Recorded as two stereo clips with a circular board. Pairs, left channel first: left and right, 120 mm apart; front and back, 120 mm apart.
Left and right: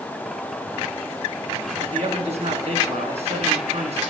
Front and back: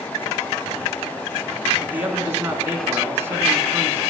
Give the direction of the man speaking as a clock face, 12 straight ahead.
4 o'clock.